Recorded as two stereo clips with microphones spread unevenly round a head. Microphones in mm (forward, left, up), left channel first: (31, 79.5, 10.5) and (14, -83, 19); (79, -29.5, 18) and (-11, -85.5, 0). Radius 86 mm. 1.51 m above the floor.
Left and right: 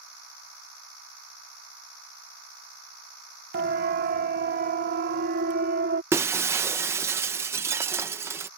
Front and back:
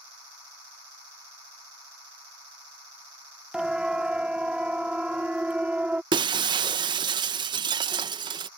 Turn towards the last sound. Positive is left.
turn(degrees=-150)